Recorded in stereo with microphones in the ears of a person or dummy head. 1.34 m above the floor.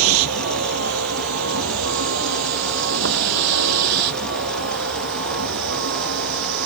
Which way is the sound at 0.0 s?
85° right.